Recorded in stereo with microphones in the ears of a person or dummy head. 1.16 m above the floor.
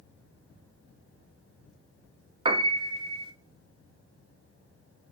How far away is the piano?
About 0.6 m.